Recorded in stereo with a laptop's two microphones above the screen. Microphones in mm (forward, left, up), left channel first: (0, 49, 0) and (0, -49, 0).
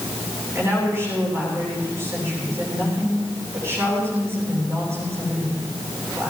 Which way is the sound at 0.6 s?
30° right (ahead or behind).